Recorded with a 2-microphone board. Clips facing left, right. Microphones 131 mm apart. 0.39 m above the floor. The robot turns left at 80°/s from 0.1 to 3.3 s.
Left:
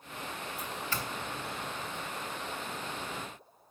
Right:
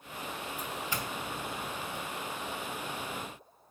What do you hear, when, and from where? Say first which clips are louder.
0.6 s a doorbell: even; 5° left (ahead or behind), 2 m; by 2.0 s 55° right (ahead or behind), 2 m